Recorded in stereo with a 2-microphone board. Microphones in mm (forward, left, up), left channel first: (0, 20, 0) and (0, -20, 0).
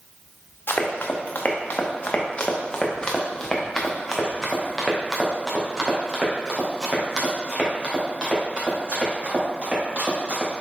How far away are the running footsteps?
About 1.8 m.